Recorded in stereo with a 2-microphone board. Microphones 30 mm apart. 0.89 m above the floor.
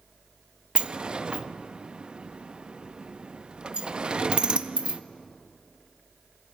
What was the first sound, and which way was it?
A sliding door, 35° right (ahead or behind).